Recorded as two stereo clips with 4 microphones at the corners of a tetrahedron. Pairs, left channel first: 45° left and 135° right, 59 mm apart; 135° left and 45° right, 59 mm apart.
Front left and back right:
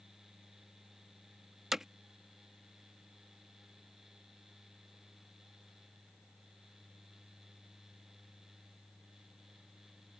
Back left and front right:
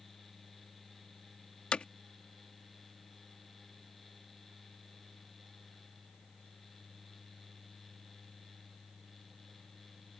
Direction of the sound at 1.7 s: 155° left.